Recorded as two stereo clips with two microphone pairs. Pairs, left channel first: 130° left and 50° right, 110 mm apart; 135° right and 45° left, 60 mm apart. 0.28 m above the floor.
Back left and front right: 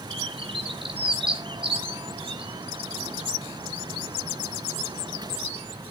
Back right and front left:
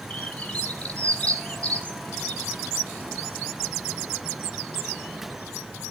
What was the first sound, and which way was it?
A bird, 70° right.